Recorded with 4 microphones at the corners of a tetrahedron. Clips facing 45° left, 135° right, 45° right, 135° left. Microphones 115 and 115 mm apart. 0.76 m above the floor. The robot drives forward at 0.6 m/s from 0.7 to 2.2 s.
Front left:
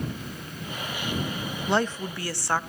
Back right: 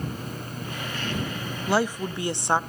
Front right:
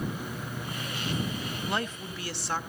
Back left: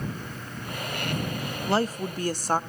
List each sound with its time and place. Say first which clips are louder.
1.7 s a woman speaking: back right 2 dB, back left 9 dB; 140° left, 0.6 m; by 2.6 s 160° left, 0.7 m